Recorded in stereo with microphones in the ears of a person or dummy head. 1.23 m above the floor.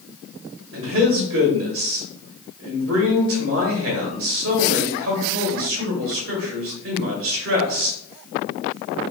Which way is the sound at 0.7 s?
65° right (ahead or behind).